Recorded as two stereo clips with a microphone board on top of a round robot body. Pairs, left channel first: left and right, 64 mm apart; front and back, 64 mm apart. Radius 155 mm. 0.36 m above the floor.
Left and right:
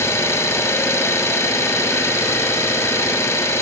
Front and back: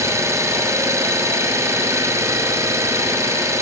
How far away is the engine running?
About 2 m.